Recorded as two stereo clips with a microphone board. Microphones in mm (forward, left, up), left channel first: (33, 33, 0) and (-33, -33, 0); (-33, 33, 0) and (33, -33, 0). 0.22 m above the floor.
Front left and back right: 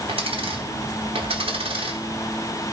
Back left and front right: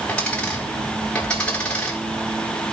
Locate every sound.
0.1 s a dropped coin: 145° right, 3.5 m